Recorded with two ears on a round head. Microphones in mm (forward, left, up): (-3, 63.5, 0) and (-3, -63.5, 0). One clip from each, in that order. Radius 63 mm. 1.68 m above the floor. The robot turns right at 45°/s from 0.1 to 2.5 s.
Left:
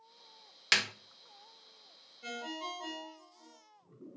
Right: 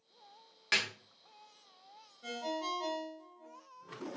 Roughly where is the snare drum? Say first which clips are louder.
Left 3 dB; left.